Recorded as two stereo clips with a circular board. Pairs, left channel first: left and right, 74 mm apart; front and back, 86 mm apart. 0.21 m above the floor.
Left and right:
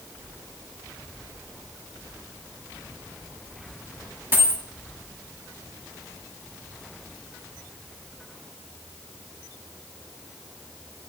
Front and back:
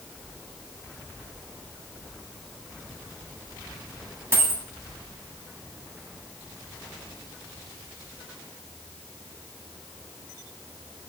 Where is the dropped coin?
140° right, 0.6 m.